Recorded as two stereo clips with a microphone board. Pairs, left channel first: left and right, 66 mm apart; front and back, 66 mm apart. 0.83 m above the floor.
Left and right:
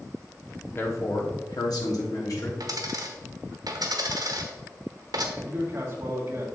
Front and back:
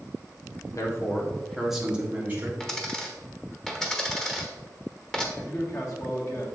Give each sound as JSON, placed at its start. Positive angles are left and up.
{"t": 0.8, "sound": "a man speaking", "azimuth_deg": 35, "distance_m": 1.5}
{"t": 2.6, "sound": "a dropped coin", "azimuth_deg": -80, "distance_m": 1.1}
{"t": 5.4, "sound": "a man speaking", "azimuth_deg": -40, "distance_m": 1.9}